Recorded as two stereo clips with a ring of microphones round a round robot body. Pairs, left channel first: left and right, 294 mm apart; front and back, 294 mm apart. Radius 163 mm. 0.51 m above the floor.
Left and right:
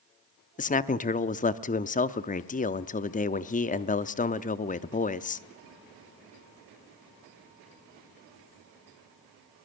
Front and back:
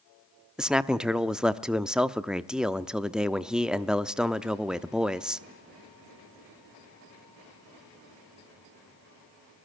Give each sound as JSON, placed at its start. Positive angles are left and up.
{"t": 0.6, "sound": "a man speaking", "azimuth_deg": 95, "distance_m": 0.7}